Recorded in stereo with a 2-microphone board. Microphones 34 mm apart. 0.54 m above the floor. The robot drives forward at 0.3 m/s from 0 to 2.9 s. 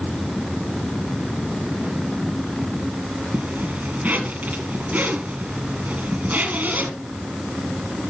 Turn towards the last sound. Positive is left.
turn(degrees=-45)  # may be behind; listen again after turning